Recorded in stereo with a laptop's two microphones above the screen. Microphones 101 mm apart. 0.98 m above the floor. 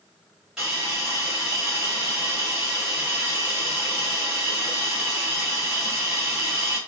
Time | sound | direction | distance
0.6 | a hiss | 5° right (ahead or behind) | 2 m